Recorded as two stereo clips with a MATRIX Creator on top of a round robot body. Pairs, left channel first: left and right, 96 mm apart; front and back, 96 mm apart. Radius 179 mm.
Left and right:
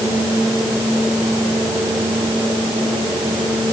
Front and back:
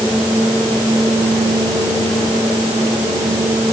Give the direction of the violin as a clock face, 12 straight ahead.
I don't hear a violin.